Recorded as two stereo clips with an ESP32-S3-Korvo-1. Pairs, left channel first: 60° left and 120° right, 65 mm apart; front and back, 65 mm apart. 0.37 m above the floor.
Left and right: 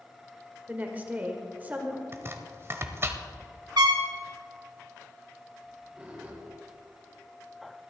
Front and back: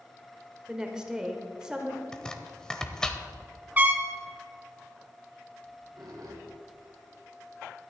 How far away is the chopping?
About 0.9 m.